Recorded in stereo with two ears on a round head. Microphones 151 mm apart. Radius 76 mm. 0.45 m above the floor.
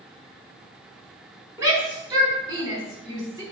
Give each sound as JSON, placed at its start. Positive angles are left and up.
{"t": 1.6, "sound": "a shout", "side_deg": -15, "distance_m": 5.5}